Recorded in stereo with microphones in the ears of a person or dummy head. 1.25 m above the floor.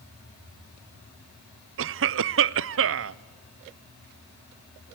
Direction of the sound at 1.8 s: 65° right (ahead or behind).